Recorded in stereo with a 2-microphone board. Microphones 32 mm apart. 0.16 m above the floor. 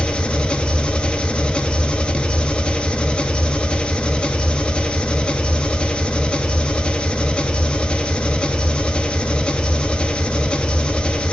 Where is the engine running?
35° left (ahead or behind), 0.9 m.